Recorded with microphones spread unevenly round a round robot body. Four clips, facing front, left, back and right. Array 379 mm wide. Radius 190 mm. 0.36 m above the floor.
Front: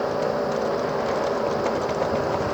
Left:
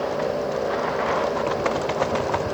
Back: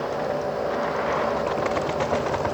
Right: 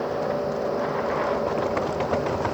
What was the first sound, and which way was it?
Only background noise.